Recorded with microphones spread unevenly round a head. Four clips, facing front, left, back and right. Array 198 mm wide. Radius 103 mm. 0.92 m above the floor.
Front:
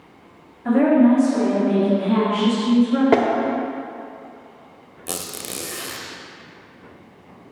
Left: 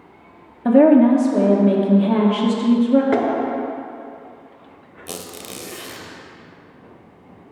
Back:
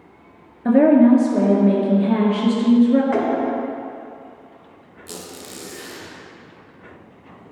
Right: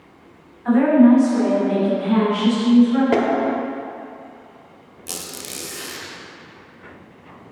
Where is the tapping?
5° right, 1.0 m.